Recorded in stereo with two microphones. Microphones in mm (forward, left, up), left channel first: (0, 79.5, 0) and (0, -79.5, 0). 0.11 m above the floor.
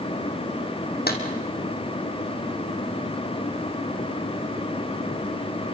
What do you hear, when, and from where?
1.1 s a clap: 75° left (ahead or behind), 3 m